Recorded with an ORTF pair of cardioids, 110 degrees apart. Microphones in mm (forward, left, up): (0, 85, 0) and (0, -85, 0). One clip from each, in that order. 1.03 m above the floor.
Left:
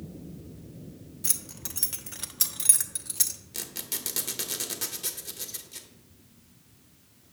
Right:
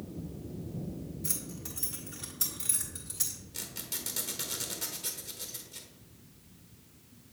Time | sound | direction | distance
1.2 | keys jangling | 55° left | 0.8 m
3.5 | a squeak | 50° left | 1.0 m